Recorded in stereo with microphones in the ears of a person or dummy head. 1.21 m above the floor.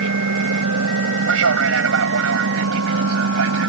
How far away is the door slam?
No door slam in this recording.